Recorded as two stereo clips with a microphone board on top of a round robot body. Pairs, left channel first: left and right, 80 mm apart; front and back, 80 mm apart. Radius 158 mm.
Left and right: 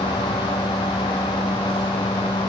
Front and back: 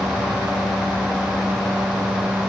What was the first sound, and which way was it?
Only background noise.